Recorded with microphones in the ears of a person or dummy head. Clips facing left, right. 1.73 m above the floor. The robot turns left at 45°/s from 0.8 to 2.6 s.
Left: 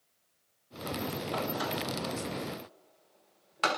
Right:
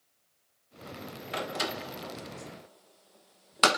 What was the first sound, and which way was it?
A door slam, 20° right (ahead or behind).